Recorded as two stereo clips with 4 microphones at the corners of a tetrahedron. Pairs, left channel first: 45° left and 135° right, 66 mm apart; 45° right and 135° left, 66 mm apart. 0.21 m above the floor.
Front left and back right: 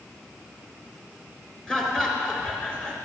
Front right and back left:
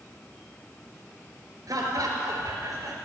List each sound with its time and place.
1.7 s laughter: 125° left, 3 m